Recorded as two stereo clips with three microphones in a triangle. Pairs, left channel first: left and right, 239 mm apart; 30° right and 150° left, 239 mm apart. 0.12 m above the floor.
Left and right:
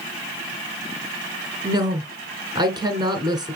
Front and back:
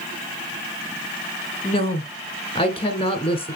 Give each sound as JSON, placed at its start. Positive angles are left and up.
{"t": 1.6, "sound": "a woman speaking", "azimuth_deg": -45, "distance_m": 1.5}